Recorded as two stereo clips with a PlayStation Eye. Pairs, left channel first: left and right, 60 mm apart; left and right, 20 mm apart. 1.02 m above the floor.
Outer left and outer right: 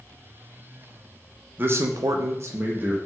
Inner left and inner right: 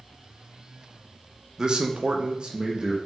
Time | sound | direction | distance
1.6 | a man speaking | 35° right (ahead or behind) | 0.6 m